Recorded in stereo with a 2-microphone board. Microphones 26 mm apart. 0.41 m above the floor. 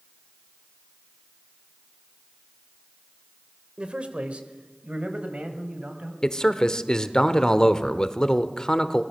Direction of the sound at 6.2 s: 30° left (ahead or behind).